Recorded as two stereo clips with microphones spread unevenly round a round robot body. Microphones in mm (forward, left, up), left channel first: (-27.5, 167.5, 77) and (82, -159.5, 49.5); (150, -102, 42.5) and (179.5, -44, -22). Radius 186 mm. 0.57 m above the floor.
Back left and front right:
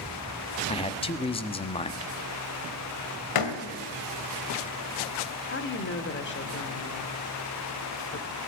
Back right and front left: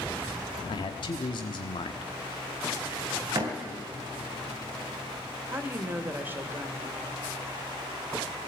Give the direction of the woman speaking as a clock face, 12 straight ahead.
10 o'clock.